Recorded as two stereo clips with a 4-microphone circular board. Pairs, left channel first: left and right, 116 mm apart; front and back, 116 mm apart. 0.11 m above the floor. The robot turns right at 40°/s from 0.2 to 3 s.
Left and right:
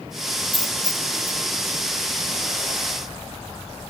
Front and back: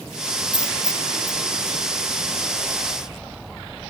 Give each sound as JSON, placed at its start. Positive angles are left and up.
{"t": 0.5, "sound": "a dropped coin", "azimuth_deg": 45}